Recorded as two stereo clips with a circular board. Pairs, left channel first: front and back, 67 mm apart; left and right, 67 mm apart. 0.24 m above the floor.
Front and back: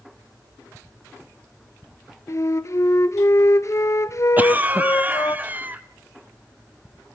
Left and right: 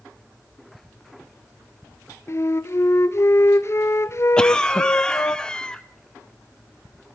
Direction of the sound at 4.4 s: 155° left.